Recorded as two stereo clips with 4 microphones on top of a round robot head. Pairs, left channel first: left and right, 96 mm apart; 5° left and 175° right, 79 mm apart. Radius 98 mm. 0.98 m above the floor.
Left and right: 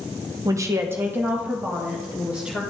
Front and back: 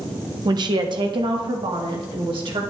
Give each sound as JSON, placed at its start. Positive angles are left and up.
{"t": 0.5, "sound": "a woman speaking", "azimuth_deg": -145, "distance_m": 1.0}